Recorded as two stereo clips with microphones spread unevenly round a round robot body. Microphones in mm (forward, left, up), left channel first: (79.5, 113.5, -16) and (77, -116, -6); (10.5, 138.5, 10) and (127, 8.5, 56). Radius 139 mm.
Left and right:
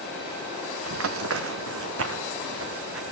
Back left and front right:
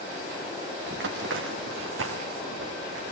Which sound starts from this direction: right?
Running footsteps, at 0.9 s.